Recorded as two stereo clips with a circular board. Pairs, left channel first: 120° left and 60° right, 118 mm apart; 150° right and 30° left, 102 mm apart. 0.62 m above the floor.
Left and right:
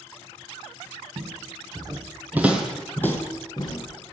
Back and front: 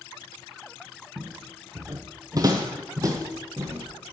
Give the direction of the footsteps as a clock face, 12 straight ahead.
1 o'clock.